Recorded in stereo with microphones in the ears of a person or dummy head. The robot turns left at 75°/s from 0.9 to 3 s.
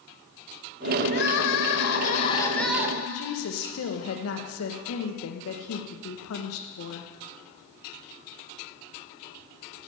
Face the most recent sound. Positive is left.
turn(degrees=85)